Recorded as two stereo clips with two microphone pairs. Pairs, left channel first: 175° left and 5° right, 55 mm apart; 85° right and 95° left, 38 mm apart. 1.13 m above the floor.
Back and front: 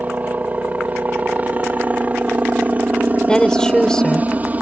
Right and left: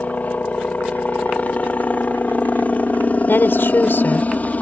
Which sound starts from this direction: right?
A woman speaking, at 3.3 s.